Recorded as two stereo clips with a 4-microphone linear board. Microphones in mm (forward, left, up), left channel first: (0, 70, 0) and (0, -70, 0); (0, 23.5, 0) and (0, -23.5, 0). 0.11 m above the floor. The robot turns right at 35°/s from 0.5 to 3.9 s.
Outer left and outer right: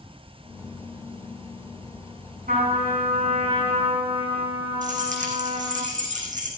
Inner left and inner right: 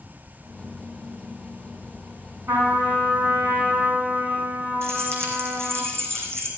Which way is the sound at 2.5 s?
85° right.